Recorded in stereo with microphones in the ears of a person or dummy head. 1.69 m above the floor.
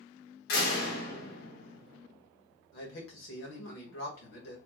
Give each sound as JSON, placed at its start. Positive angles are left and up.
{"t": 0.5, "sound": "a door slam", "side_deg": 60, "distance_m": 1.5}
{"t": 2.7, "sound": "a man speaking", "side_deg": 70, "distance_m": 1.5}